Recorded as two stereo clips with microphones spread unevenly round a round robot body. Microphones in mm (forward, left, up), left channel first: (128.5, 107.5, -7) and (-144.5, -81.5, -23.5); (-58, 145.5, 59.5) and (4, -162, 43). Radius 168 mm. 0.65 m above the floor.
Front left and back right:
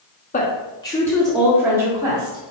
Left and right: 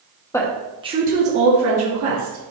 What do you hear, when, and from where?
0.3 s a woman speaking: 30° left, 1.1 m; by 2.5 s 70° right, 2 m